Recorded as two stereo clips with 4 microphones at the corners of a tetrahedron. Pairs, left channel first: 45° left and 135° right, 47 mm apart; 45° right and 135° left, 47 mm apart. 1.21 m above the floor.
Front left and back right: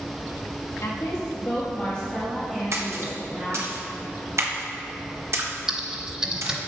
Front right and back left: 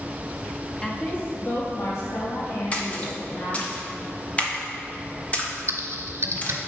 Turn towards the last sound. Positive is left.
turn(degrees=155)